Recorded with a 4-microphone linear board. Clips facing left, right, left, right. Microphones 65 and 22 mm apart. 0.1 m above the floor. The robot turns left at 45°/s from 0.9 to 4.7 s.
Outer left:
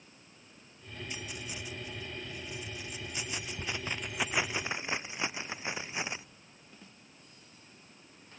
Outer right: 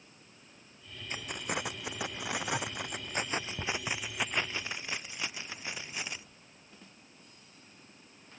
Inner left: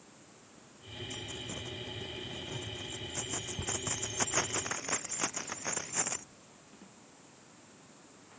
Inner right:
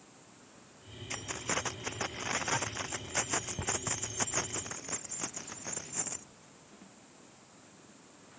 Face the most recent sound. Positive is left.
turn(degrees=25)  # may be behind; listen again after turning